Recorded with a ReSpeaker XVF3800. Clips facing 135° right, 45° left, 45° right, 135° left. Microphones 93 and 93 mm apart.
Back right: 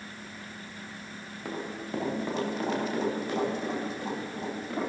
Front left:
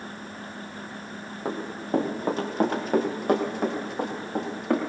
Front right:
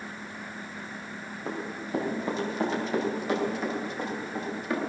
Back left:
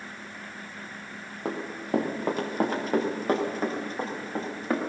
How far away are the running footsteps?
About 5 m.